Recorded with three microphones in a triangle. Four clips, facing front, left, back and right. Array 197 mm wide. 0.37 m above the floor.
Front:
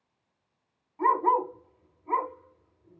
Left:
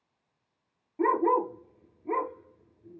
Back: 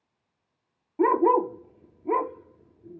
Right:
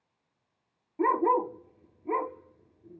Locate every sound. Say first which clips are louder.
1.0 s a dog barking: even, back 3 dB; straight behind, 2 m